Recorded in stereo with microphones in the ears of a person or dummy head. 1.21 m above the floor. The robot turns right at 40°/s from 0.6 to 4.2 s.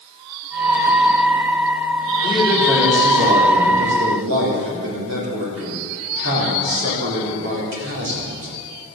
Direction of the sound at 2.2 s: 165° left.